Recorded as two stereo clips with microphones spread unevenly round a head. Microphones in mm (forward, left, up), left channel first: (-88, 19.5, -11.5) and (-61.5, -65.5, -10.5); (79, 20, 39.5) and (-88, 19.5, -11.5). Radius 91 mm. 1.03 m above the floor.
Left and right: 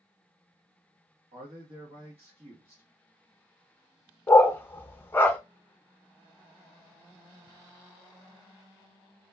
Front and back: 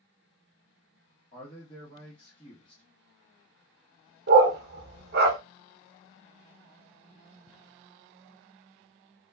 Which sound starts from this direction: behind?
A dog barking, at 4.3 s.